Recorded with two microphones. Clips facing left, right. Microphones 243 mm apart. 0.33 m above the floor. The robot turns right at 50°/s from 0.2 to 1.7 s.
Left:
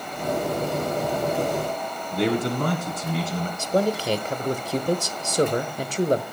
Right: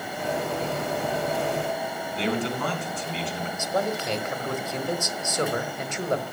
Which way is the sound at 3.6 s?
35° left (ahead or behind).